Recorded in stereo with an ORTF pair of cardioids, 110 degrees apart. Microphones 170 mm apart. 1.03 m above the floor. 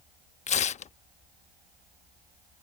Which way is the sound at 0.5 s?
45° left.